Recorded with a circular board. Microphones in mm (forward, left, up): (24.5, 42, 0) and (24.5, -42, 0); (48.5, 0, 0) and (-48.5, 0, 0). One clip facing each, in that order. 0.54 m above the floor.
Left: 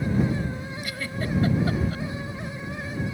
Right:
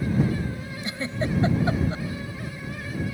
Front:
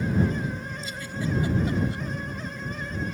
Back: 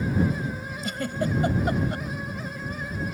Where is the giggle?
155° right.